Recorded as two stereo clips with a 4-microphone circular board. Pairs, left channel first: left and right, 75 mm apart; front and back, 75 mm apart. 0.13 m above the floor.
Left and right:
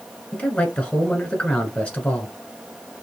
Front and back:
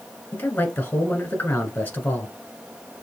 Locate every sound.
0.3 s a man speaking: 35° left, 1.2 m